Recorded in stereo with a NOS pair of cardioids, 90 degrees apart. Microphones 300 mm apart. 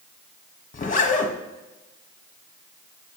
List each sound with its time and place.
0.7 s a zipper: 25° left, 1.5 m